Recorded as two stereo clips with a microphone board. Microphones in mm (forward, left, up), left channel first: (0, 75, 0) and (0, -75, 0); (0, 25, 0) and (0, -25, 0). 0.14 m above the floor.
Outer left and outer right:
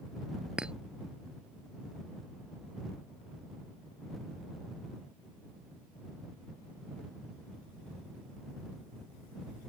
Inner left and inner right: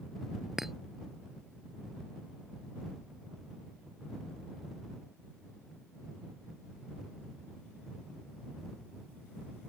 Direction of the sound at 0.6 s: 5° right (ahead or behind).